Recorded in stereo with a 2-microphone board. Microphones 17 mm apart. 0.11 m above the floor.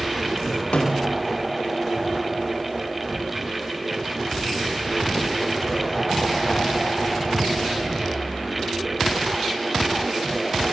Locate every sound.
0.7 s a snare drum: 80° left, 5 m